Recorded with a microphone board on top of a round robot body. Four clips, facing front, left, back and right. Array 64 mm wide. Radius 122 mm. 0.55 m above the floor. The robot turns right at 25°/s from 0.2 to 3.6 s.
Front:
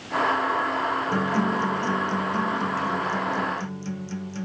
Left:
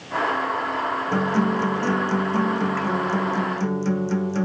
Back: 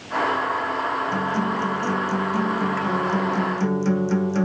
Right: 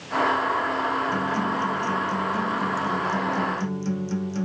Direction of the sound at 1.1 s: 85° left.